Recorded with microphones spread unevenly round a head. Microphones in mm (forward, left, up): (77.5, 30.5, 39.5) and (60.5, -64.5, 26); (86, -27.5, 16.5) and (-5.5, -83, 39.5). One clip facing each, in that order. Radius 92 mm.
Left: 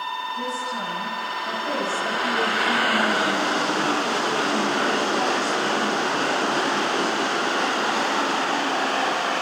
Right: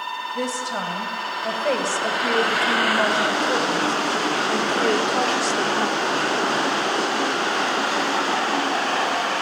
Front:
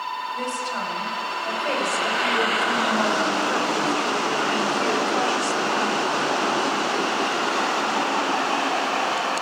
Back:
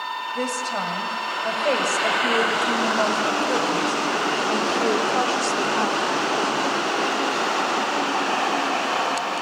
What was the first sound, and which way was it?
A woman speaking, 100° right.